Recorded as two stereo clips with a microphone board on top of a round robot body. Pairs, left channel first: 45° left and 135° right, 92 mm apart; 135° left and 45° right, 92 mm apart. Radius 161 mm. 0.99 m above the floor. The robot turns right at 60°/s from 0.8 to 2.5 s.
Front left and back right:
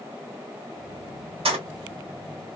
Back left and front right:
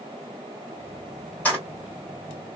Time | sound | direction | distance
1.4 | keys jangling | 150° right | 1.5 m